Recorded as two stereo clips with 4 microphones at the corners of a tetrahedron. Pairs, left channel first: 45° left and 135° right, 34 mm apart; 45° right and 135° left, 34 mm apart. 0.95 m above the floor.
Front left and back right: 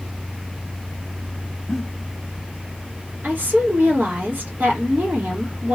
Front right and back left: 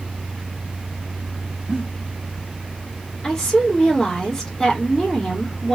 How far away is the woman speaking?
About 2 m.